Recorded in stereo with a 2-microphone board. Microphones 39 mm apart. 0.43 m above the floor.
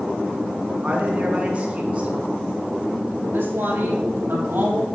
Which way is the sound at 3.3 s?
65° right (ahead or behind).